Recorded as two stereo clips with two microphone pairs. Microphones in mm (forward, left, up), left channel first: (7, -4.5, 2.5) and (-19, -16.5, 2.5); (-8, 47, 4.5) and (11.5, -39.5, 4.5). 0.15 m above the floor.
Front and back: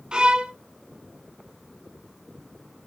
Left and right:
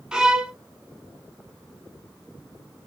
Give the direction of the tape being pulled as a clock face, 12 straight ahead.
I don't hear tape being pulled.